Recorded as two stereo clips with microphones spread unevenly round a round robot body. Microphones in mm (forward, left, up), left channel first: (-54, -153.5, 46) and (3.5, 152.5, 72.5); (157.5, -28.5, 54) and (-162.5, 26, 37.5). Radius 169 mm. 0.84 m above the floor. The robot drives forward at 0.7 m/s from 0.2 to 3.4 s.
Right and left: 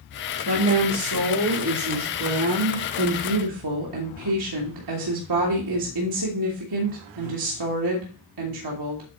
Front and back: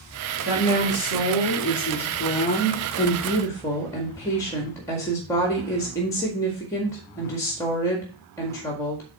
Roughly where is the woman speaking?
Ahead left.